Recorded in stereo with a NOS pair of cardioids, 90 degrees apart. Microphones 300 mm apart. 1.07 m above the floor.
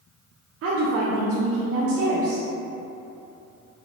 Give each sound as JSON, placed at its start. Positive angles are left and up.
{"t": 0.6, "sound": "a woman speaking", "azimuth_deg": -50, "distance_m": 0.7}